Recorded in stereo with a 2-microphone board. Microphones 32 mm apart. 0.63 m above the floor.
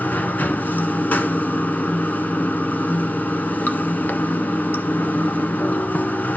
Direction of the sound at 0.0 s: 65° left (ahead or behind).